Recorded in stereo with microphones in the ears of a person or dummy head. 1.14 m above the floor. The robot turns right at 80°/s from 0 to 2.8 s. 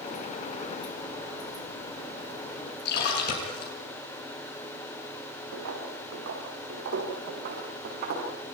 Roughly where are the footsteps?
Right.